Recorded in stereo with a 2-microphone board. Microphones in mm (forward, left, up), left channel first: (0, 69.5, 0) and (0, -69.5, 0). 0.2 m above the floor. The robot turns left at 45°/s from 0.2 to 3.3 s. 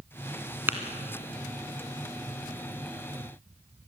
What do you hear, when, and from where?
0.7 s tapping: 15° right (ahead or behind), 1.8 m; by 0.8 s 10° right (ahead or behind), 1.8 m